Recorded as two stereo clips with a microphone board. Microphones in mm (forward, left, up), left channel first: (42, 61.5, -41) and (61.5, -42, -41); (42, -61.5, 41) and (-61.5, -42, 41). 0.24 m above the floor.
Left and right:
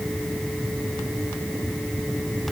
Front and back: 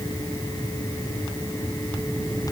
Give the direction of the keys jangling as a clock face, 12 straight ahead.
I don't hear keys jangling.